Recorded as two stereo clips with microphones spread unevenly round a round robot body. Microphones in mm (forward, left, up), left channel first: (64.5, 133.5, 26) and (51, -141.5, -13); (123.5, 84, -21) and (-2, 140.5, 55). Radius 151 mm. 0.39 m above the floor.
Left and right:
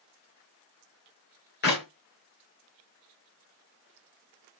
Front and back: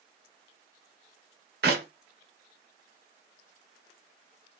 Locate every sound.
1.6 s a clap: 145° left, 1.3 m